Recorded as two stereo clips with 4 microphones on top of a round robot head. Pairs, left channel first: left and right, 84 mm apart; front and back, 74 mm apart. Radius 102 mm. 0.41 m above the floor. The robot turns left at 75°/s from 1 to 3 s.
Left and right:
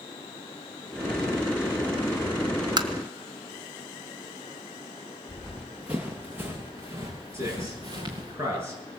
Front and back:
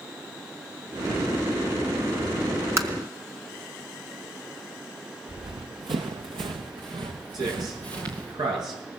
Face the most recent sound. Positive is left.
turn(degrees=-150)